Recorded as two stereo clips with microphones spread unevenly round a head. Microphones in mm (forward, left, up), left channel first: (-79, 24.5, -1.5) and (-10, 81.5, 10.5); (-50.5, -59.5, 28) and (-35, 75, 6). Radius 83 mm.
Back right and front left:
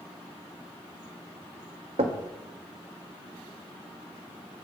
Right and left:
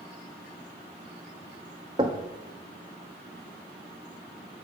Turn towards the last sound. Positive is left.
turn(degrees=15)